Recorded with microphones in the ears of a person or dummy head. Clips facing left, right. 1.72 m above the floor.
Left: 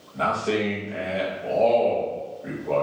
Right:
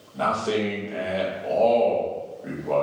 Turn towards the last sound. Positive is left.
turn(degrees=-10)  # may be behind; listen again after turning